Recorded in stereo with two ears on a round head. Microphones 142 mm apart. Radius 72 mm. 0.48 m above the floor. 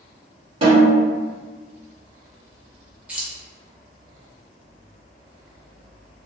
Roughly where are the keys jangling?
Centre.